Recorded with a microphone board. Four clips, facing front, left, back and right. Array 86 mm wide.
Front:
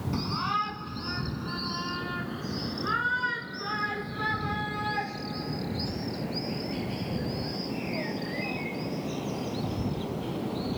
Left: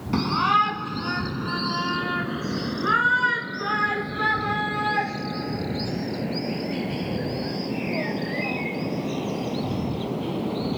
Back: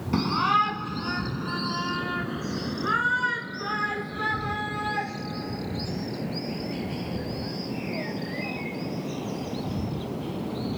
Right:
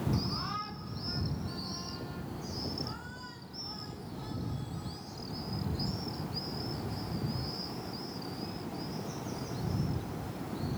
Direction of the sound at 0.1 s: 120° left.